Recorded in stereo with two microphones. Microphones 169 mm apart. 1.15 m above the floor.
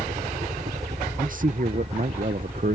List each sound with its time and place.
0.0 s a helicopter: 45° right (ahead or behind); by 2.8 s 35° right (ahead or behind)
1.2 s a man speaking: 55° right (ahead or behind)